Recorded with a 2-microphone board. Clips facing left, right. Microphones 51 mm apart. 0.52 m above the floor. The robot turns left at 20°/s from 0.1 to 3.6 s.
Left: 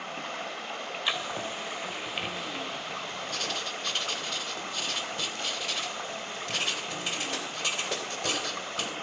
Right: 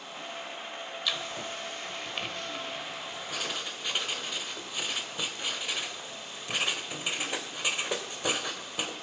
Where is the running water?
120° left, 1.9 m; by 9.0 s 50° left, 1.9 m.